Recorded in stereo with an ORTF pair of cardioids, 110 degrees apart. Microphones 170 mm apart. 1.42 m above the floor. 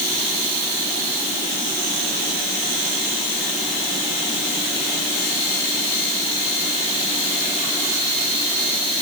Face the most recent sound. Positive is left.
No sound to turn to.